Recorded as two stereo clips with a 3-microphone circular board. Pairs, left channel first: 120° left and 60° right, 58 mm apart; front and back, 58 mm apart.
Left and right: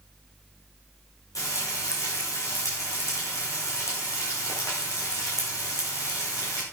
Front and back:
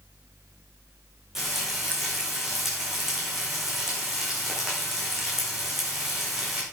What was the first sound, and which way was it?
Frying, 95° left.